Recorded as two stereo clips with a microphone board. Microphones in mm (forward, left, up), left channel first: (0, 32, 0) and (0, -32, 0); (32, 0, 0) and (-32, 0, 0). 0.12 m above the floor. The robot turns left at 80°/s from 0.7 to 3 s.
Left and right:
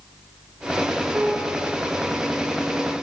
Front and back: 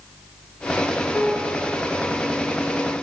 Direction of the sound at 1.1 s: 40° right.